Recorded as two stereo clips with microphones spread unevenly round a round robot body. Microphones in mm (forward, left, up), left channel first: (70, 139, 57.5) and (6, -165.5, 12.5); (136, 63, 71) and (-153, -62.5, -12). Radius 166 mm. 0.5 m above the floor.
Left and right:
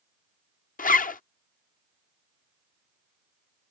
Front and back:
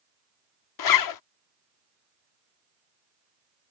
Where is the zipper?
15° left.